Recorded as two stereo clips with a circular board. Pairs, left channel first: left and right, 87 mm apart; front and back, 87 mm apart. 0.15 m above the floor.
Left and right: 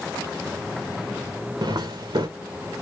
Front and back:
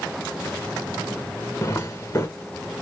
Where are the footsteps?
60° right, 1.0 m.